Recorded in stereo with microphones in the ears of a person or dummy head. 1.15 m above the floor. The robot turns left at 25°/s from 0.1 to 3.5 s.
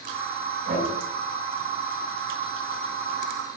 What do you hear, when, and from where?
0.7 s knocking: 70° right (ahead or behind), 5.5 m; by 0.9 s 60° right (ahead or behind), 5.5 m